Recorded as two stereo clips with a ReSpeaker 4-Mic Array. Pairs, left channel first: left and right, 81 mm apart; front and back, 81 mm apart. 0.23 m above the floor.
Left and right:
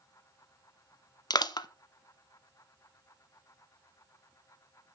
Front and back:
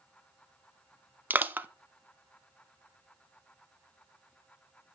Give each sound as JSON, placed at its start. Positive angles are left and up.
{"t": 1.3, "sound": "crushing", "azimuth_deg": 115, "distance_m": 0.5}